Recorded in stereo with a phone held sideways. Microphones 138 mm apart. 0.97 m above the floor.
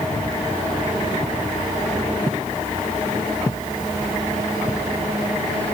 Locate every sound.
Only background noise.